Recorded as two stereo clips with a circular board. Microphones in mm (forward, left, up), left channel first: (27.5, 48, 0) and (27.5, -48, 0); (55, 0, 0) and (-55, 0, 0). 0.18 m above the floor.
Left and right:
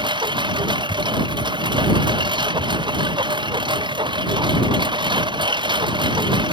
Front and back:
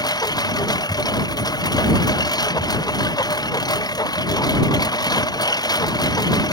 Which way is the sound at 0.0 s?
55° right.